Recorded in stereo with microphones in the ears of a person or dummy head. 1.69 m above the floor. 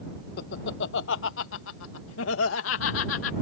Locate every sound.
0.4 s laughter: 60° left (ahead or behind); by 3.3 s 90° left